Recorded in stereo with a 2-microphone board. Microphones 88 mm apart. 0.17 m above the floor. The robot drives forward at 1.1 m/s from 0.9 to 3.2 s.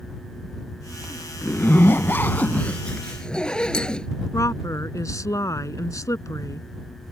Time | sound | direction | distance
1.4 | a zipper | 15° left (ahead or behind) | ?
4.3 | a woman speaking | 40° left (ahead or behind) | ?